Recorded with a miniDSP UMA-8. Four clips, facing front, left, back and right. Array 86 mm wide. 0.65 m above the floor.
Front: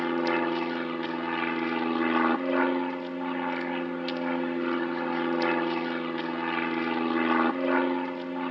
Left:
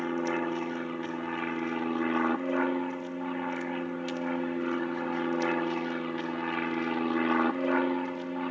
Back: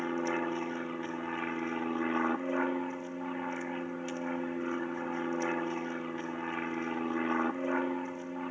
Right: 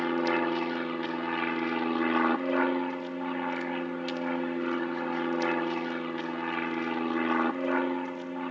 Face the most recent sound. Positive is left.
turn(degrees=10)